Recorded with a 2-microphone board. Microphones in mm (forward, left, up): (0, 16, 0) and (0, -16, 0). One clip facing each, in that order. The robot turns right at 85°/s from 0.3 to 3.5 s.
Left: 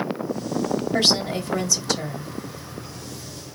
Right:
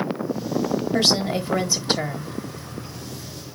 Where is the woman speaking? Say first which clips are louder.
Right 1 dB; straight behind, 1.4 m; by 2.4 s 60° right, 1.4 m.